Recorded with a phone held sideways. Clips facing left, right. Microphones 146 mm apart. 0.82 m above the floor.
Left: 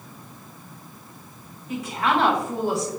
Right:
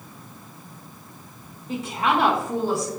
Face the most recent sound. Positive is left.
turn(degrees=25)  # may be behind; listen again after turning